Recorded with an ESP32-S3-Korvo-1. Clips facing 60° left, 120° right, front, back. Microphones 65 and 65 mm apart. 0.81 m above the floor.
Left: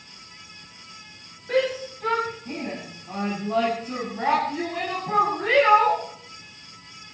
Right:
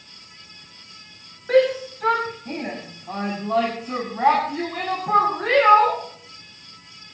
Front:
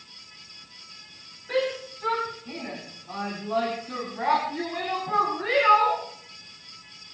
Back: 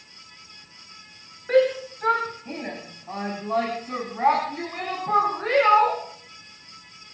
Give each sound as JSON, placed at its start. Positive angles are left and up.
{"t": 1.5, "sound": "a shout", "azimuth_deg": -140, "distance_m": 5.5}